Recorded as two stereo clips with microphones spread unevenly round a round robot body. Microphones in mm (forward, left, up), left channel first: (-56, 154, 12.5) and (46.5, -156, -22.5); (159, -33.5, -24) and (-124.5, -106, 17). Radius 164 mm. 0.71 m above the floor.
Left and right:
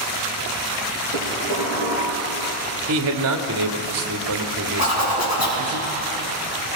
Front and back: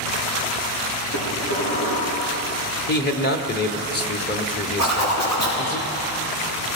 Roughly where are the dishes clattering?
Ahead left.